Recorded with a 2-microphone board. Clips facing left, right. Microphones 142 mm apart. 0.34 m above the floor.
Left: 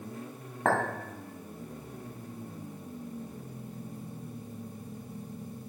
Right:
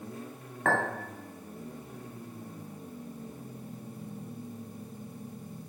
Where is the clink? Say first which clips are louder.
Left 1 dB; 35° left (ahead or behind), 1.8 m.